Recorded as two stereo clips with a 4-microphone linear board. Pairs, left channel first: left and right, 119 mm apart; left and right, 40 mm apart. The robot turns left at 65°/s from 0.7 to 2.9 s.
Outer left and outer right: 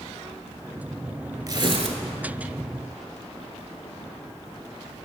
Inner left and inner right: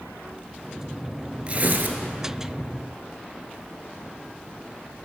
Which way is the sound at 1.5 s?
35° right.